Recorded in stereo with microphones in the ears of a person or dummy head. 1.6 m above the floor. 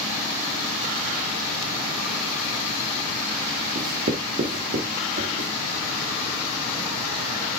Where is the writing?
40° right (ahead or behind), 2.0 m.